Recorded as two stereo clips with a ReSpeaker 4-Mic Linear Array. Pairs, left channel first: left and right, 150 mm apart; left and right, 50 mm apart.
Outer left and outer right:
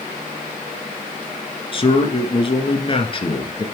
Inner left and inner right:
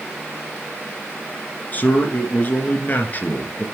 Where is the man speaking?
35° left (ahead or behind), 1.5 m.